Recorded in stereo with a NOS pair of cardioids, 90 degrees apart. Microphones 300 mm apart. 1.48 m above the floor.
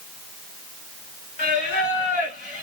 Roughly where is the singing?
Ahead left.